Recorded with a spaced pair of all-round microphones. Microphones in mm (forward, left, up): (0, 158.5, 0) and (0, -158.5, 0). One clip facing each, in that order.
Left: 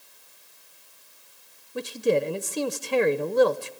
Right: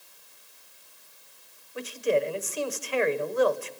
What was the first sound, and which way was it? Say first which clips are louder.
A man speaking: left 3 dB; 55° left (ahead or behind).